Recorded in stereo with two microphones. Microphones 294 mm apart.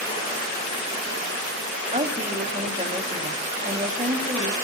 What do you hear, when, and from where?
1.9 s a woman speaking: 25° right (ahead or behind), 1.8 m